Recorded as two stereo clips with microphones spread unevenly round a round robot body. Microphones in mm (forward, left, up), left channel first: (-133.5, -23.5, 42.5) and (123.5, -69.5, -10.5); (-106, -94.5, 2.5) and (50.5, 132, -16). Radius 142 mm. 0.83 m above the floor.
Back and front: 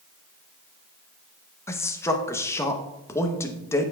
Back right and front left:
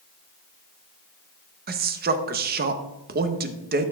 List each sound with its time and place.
1.7 s a man speaking: 80° left, 0.6 m